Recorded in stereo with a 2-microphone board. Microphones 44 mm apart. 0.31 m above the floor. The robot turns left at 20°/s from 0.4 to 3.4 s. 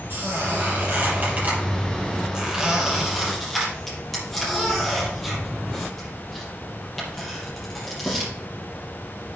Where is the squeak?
55° right (ahead or behind), 5.5 m; by 8.3 s 5° left (ahead or behind), 5.5 m.